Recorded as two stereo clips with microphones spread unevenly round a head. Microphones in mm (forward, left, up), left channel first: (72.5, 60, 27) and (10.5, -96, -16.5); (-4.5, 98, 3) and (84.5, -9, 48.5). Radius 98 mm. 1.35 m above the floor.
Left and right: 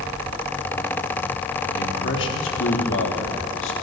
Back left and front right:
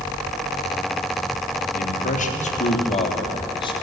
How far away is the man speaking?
About 3.5 m.